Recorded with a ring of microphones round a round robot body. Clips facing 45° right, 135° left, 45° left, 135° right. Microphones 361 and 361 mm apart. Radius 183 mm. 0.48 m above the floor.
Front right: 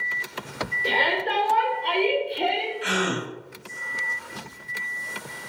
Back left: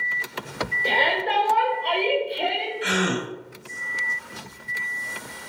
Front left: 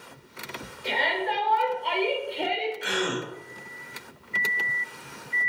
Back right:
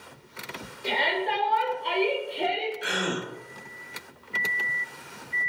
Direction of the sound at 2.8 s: 135° left.